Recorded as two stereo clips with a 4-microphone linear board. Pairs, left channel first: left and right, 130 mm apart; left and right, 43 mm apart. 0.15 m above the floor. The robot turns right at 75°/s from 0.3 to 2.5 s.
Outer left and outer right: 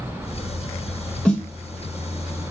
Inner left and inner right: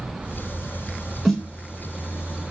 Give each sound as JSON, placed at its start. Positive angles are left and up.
{"t": 1.2, "sound": "a snare drum", "side_deg": 10, "distance_m": 1.0}